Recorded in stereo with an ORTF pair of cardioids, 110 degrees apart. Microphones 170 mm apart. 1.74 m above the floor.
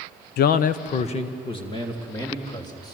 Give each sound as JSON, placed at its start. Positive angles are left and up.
{"t": 0.4, "sound": "a man speaking", "azimuth_deg": 70, "distance_m": 0.9}